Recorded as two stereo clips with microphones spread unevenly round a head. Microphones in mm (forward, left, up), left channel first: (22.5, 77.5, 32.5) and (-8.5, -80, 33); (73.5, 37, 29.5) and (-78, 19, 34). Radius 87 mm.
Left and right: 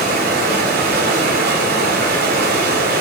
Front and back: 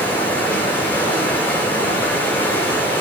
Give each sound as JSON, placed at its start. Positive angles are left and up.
{"t": 0.0, "sound": "running water", "azimuth_deg": -75, "distance_m": 7.5}